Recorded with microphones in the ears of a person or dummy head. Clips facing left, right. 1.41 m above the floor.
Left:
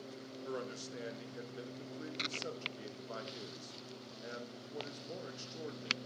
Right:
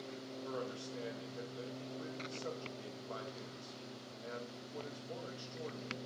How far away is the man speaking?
About 0.6 m.